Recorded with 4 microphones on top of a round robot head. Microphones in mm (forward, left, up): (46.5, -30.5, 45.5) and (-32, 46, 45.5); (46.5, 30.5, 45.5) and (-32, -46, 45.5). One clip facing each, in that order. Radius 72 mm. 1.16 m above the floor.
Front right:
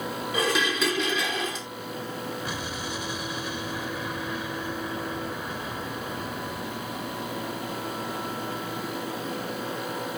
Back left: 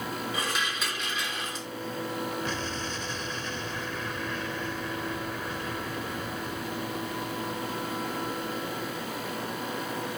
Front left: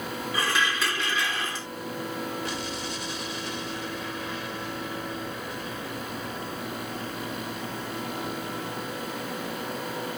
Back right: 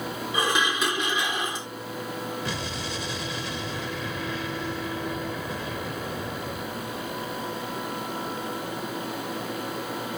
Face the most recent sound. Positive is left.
turn(degrees=-125)